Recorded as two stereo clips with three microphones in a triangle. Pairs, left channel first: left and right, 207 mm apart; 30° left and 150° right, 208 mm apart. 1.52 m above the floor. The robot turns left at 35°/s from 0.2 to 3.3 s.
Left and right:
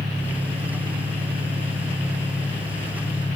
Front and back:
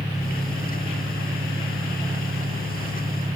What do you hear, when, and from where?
0.0 s an engine running: 75° right, 4 m; by 3.4 s 175° left, 4 m